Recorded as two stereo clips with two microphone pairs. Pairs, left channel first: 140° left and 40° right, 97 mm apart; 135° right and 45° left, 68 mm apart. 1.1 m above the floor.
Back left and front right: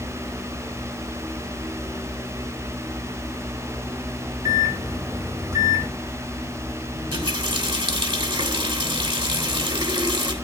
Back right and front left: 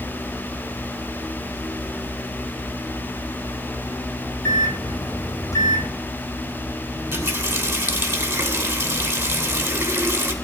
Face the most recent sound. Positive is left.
turn(degrees=-20)